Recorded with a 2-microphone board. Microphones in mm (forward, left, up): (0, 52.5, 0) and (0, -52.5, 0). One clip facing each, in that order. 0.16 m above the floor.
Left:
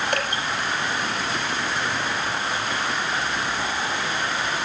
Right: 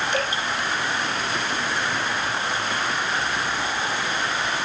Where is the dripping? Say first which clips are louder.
Right 1 dB; 55° left (ahead or behind), 4 m.